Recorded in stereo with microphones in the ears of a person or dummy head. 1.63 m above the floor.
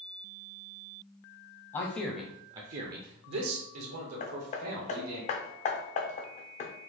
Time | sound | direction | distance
1.7 | a man speaking | 25° left (ahead or behind) | 0.8 m
4.2 | hammering | 35° left (ahead or behind) | 0.6 m